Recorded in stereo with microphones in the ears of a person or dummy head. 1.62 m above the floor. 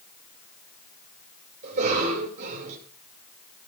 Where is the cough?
55° right (ahead or behind), 7.5 m.